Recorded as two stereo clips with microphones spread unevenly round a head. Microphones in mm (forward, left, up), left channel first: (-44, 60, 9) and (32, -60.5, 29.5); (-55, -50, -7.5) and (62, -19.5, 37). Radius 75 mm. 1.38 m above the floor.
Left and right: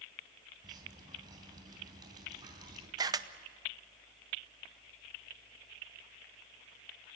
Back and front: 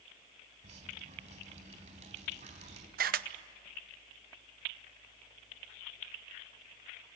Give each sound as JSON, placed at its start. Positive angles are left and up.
{"t": 0.6, "sound": "dripping", "azimuth_deg": 5, "distance_m": 3.5}
{"t": 3.0, "sound": "a camera shutter", "azimuth_deg": 10, "distance_m": 0.8}